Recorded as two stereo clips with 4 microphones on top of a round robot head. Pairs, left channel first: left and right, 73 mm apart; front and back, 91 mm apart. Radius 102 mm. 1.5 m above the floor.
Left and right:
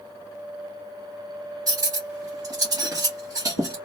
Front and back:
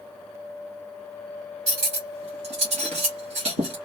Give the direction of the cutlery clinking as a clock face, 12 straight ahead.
5 o'clock.